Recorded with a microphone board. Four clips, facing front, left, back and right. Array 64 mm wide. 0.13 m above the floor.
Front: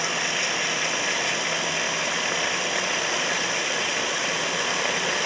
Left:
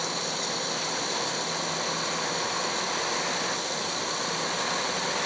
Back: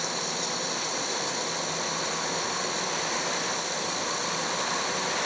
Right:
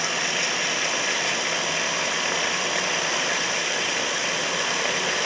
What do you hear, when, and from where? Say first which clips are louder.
0.0 s running water: right 5 dB, front 5 dB; 40° right